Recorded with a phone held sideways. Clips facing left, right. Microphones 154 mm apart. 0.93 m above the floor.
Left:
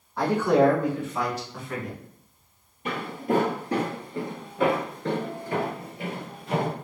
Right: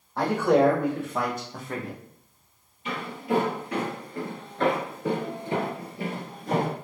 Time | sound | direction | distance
0.2 | a man speaking | 70° right (ahead or behind) | 1.7 m
2.9 | footsteps | 55° left (ahead or behind) | 1.4 m